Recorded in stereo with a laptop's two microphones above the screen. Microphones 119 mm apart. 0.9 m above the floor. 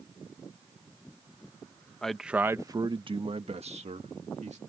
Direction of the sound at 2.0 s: 5° left (ahead or behind).